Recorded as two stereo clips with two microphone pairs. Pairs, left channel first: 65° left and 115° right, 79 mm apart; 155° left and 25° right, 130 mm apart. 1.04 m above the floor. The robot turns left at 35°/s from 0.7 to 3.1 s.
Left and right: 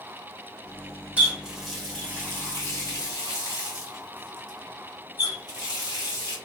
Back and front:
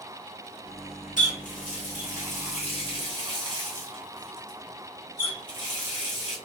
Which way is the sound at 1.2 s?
170° left.